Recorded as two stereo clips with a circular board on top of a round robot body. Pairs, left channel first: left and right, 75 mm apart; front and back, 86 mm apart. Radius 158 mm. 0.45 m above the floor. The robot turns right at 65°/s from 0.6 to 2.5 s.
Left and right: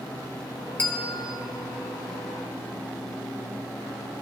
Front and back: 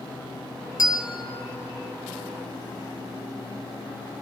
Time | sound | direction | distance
0.8 | a bell | 25° left | 1.5 m